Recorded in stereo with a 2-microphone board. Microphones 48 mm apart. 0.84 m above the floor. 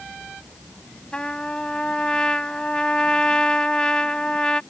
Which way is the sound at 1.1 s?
20° left (ahead or behind).